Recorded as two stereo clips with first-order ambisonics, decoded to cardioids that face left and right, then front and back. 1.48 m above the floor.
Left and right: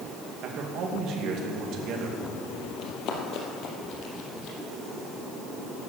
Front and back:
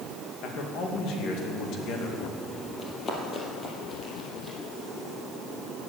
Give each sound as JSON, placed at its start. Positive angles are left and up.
{"t": 0.4, "sound": "a man speaking", "azimuth_deg": -45, "distance_m": 2.0}
{"t": 2.8, "sound": "running footsteps", "azimuth_deg": 55, "distance_m": 2.5}